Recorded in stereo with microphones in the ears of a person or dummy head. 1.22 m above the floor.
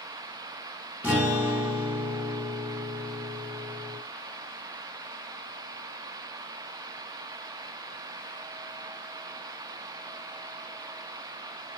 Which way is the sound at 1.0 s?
5° right (ahead or behind).